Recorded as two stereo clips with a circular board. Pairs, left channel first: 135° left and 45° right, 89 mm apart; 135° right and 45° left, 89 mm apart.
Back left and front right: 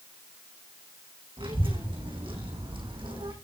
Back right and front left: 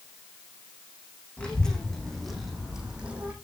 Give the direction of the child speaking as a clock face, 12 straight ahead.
2 o'clock.